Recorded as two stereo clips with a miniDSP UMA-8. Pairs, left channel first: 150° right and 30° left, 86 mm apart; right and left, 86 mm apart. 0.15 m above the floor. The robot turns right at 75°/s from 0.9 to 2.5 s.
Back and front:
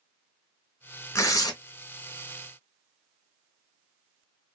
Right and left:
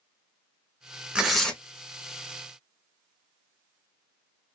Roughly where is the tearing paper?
Behind.